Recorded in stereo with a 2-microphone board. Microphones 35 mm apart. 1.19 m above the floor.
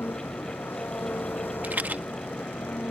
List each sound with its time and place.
0.0 s an engine running: 70° left (ahead or behind)
1.6 s a rattle: 55° right (ahead or behind)